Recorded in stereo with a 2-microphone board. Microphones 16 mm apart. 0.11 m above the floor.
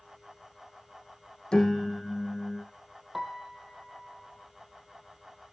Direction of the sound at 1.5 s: 55° left (ahead or behind).